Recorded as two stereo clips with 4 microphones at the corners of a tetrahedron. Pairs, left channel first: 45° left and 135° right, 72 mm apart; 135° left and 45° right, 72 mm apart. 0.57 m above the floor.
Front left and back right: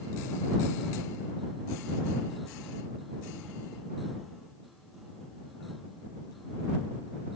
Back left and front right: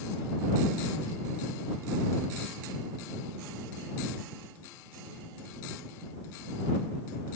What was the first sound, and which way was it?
Only background noise.